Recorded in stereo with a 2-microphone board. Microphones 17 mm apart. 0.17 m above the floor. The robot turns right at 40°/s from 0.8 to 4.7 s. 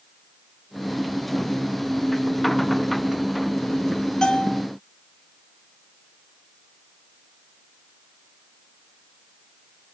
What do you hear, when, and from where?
4.2 s a bell: 55° left (ahead or behind), 1.6 m